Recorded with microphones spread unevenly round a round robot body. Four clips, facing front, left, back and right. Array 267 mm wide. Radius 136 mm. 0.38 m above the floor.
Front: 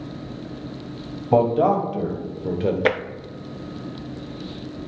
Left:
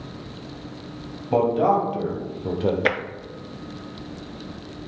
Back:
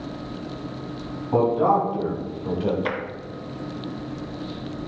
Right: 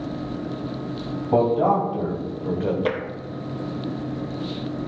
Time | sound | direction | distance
1.3 | a man speaking | 10° right | 2.5 m
2.9 | tapping | 5° right | 0.6 m